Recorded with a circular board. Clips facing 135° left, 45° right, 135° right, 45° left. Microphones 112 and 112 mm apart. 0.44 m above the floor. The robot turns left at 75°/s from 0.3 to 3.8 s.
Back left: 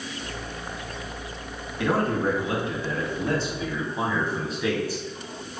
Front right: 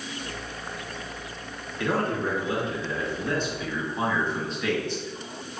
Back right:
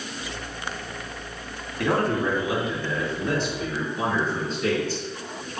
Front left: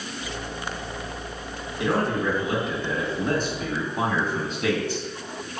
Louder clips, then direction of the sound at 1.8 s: Back left 3 dB, back right 1 dB; 155° right.